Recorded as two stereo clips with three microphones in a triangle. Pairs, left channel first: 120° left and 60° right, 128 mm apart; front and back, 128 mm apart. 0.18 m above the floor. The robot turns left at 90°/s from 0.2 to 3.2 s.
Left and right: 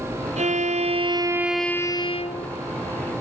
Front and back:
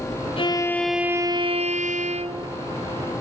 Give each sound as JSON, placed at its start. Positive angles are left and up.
{"t": 0.4, "sound": "a violin", "azimuth_deg": -40, "distance_m": 1.5}